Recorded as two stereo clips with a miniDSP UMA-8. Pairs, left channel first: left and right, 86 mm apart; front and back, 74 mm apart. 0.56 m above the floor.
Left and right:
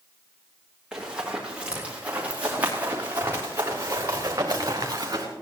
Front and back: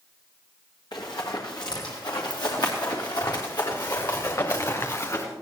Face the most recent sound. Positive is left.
turn(degrees=-45)